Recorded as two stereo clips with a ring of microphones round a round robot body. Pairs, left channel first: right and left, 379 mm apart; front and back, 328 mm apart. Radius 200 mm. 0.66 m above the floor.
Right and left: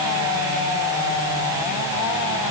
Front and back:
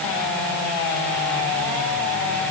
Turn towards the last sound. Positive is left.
No sound to turn to.